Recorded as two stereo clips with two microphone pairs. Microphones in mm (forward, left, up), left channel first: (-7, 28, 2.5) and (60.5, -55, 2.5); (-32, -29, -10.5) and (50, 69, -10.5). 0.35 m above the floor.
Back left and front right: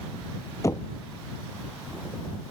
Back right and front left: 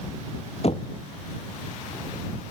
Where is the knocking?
170° right.